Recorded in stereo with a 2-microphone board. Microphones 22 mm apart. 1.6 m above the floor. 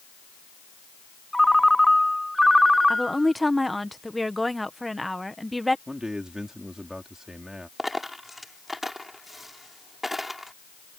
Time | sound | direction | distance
1.3 | a ringtone | 5° left (ahead or behind) | ?
2.9 | a woman speaking | centre (ahead or behind) | ?
5.9 | a man speaking | 25° right (ahead or behind) | ?
7.8 | a dropped coin | 5° right (ahead or behind) | ?